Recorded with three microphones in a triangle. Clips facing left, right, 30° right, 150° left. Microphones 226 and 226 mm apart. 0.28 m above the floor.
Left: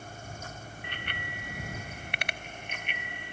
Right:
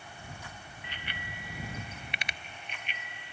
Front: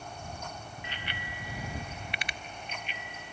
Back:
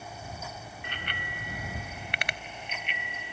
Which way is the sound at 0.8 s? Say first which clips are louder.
Left 2 dB, back 3 dB; 120° left.